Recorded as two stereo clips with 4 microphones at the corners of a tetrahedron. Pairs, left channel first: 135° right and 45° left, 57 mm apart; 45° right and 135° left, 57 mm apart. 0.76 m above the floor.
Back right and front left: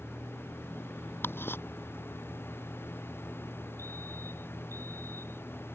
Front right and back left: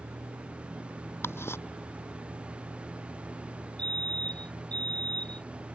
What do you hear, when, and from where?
0.0 s a vehicle: 140° left
1.2 s ticking: 85° right
3.8 s a fire alarm: 25° left